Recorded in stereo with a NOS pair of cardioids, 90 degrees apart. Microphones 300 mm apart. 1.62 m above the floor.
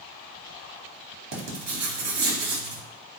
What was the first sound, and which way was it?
Writing, 60° right.